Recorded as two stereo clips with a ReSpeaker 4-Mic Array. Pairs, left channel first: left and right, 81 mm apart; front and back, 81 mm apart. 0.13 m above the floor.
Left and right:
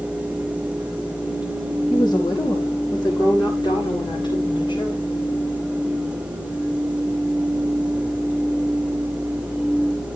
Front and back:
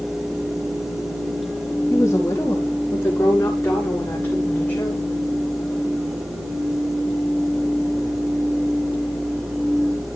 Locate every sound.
1.9 s a woman speaking: 55° left, 5.5 m; by 5.0 s 70° left, 7 m